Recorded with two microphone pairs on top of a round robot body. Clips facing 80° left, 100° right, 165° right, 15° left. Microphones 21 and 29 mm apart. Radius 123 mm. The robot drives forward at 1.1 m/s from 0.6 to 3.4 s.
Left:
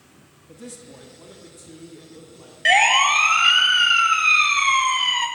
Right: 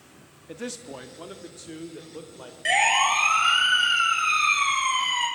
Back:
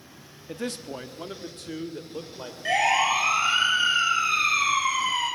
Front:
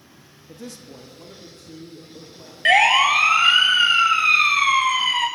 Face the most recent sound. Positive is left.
turn(degrees=35)